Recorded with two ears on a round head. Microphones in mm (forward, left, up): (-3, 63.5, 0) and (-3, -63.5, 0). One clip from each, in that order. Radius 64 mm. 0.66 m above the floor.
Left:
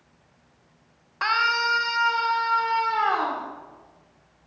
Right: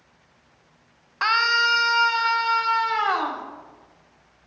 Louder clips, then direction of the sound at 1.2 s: Right 3 dB; 20° right (ahead or behind).